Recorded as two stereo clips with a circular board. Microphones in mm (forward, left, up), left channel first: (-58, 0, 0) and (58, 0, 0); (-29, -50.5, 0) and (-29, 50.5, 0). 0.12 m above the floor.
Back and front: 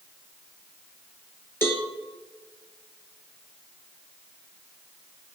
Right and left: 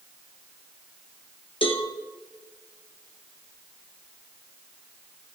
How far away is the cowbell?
About 2 m.